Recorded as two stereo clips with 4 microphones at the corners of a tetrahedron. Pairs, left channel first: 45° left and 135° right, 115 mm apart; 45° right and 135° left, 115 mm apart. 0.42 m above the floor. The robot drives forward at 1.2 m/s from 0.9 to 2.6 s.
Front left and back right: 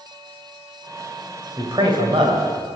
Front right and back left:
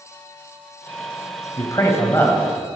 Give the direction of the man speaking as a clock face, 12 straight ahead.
3 o'clock.